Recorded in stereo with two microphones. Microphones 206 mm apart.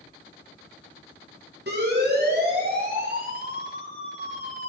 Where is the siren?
55° right (ahead or behind), 7.5 m; by 4.7 s 35° right (ahead or behind), 7.5 m.